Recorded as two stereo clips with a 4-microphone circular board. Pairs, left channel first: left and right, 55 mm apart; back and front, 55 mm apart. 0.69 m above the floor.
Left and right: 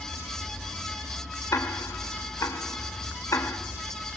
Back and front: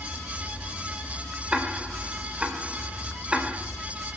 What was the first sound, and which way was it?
Ticking, 70° left.